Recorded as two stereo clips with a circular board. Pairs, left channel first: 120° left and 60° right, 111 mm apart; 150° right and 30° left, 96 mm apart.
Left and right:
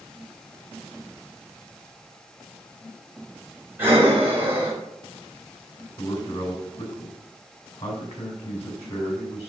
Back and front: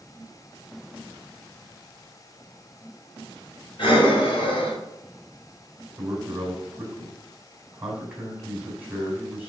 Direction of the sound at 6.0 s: 105° left.